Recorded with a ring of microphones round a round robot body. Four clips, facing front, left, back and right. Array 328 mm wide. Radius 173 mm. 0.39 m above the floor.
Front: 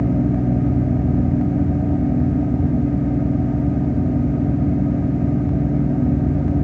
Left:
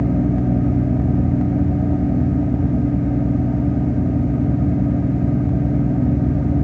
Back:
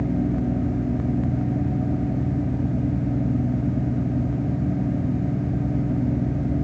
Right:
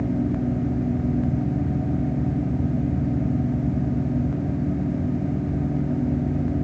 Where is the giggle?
I don't hear a giggle.